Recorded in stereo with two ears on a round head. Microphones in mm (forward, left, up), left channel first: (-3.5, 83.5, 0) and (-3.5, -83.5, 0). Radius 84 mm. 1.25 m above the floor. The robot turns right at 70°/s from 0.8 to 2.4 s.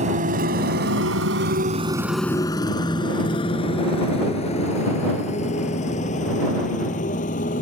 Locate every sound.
0.0 s a motorcycle: 40° right (ahead or behind); by 7.6 s 45° left (ahead or behind)